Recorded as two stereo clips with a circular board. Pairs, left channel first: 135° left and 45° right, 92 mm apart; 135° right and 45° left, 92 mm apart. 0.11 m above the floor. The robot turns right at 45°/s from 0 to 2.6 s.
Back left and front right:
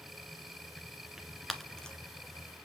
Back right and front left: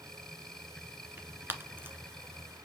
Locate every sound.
1.2 s tearing paper: 30° left, 1.5 m; by 2.0 s 65° left, 1.5 m